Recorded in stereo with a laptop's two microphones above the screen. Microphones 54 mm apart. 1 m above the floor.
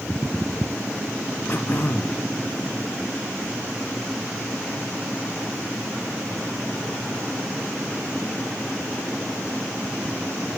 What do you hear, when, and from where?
1.5 s throat clearing: 45° left (ahead or behind), 0.7 m